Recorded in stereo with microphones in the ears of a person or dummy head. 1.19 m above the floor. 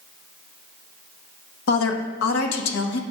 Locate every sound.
1.7 s a woman speaking: 85° left, 1.0 m